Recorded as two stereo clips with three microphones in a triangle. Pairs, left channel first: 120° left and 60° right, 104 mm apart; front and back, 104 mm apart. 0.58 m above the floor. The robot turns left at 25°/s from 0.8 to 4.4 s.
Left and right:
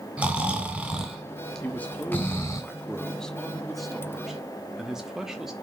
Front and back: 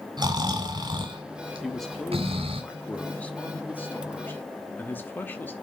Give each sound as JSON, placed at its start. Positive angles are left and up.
{"t": 0.2, "sound": "snoring", "azimuth_deg": -140, "distance_m": 3.0}
{"t": 1.6, "sound": "a man speaking", "azimuth_deg": 85, "distance_m": 1.0}